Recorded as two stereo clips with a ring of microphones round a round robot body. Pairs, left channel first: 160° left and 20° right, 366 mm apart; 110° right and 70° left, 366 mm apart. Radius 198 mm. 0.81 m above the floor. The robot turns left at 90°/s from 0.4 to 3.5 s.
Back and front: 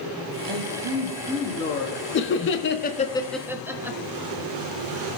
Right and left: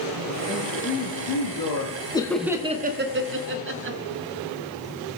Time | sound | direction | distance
0.5 | a man speaking | 20° right | 1.6 m
2.1 | laughter | straight behind | 0.9 m